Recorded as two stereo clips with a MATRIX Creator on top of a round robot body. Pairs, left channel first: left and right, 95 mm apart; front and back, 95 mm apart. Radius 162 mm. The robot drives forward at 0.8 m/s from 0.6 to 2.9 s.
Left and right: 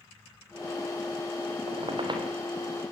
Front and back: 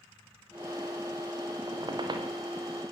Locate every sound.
1.7 s a squeak: 130° right, 2.5 m; by 2.3 s 135° right, 2.5 m